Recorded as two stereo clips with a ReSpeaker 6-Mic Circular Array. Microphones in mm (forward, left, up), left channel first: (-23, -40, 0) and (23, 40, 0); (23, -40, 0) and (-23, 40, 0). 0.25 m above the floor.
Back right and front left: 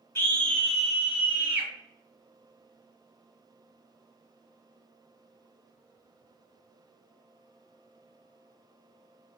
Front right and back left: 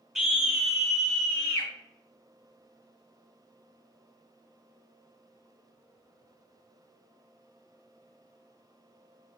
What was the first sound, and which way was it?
A scream, 165° right.